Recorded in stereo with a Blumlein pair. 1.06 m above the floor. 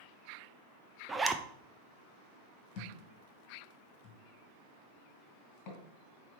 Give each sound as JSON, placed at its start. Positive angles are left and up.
{"t": 1.1, "sound": "a zipper", "azimuth_deg": -10, "distance_m": 0.6}
{"t": 2.8, "sound": "a thud", "azimuth_deg": 40, "distance_m": 2.5}